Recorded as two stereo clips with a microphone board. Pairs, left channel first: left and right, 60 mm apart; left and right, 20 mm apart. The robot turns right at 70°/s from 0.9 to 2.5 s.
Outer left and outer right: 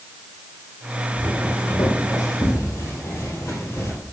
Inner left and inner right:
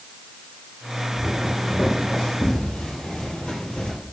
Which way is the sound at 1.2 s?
20° left (ahead or behind).